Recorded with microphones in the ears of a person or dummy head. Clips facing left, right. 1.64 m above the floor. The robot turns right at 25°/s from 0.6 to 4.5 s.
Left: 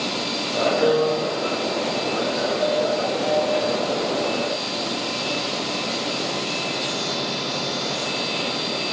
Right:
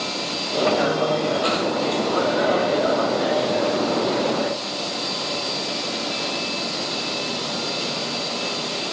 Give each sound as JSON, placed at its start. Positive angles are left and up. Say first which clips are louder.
{"t": 0.8, "sound": "a piano", "louder": "left 2 dB", "side_deg": 75, "distance_m": 5.0}